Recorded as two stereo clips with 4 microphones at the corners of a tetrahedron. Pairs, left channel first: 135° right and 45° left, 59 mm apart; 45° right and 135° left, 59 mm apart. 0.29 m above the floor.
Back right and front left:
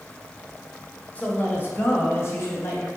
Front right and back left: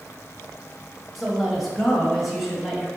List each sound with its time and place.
1.1 s a woman speaking: 130° right, 1.3 m; by 2.9 s 135° right, 2.5 m